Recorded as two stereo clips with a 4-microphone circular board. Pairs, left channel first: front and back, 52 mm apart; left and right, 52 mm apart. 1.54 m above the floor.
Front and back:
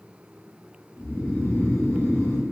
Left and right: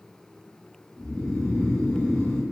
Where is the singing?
No singing in this recording.